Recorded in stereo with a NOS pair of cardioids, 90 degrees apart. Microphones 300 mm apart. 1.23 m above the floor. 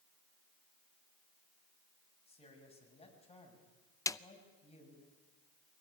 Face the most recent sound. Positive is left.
turn(degrees=10)